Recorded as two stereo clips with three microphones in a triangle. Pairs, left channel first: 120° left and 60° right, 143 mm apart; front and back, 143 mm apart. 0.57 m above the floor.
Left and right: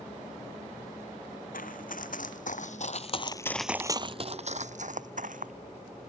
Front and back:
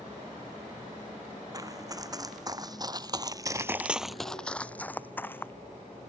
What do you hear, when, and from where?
1.5 s running footsteps: 115° left; by 5.5 s 75° right